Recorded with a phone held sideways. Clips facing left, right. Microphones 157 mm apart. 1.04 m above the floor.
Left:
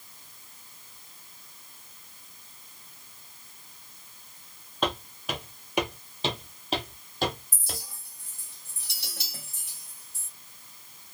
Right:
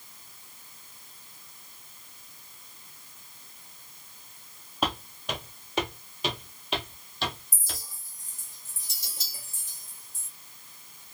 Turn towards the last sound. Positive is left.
turn(degrees=65)  # may be behind; listen again after turning